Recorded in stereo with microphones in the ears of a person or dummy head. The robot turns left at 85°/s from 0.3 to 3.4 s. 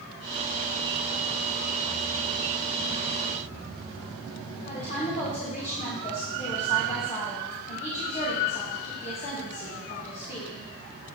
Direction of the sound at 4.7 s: 35° left (ahead or behind).